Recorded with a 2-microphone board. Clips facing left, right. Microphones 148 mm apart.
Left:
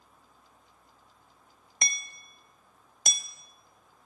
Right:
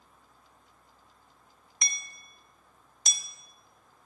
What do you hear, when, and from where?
1.8 s hammering: 55° left (ahead or behind), 1.3 m